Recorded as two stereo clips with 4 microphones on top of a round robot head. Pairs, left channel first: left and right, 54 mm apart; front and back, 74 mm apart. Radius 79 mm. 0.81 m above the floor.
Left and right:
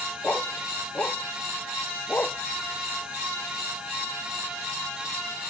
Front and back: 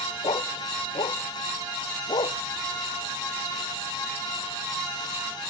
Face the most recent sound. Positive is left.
turn(degrees=30)